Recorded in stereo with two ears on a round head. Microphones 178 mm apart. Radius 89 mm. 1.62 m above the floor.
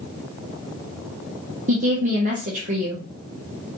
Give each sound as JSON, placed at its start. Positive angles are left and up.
{"t": 1.7, "sound": "a woman speaking", "side_deg": -40, "distance_m": 1.0}